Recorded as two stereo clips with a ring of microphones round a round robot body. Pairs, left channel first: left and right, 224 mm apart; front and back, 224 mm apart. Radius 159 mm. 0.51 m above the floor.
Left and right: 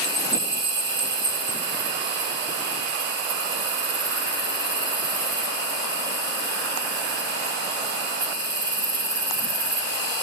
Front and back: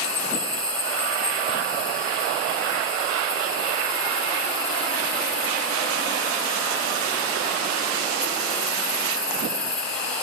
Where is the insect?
80° right, 1.9 m.